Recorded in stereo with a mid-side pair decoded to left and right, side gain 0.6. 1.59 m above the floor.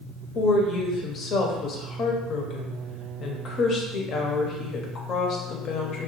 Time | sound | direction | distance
0.3 | a woman speaking | 50° left | 0.7 m